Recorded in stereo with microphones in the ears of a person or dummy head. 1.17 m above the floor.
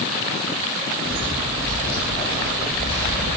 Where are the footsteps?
15° left (ahead or behind), 1.1 m; by 3.4 s 50° left (ahead or behind), 2 m.